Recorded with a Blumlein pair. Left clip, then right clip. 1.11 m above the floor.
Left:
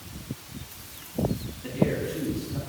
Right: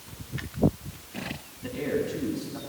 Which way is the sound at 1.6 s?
5° right.